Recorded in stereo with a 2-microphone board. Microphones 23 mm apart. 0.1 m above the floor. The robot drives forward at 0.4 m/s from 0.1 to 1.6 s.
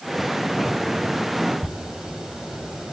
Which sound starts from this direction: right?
A zipper, at 1.6 s.